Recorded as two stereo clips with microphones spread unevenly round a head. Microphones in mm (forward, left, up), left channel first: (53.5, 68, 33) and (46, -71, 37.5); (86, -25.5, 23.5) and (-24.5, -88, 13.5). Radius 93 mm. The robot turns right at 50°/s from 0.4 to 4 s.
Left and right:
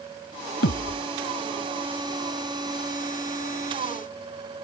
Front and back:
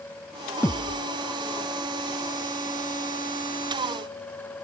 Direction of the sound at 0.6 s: 105° left.